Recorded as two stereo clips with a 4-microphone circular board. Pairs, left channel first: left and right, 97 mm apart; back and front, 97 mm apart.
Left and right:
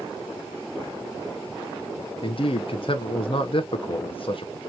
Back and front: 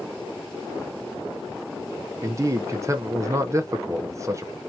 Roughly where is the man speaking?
Ahead left.